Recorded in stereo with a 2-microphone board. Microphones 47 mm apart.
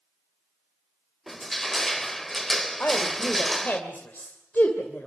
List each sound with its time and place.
1.3 s crushing: 5° left (ahead or behind), 1.0 m
2.8 s a woman speaking: 40° left (ahead or behind), 2.5 m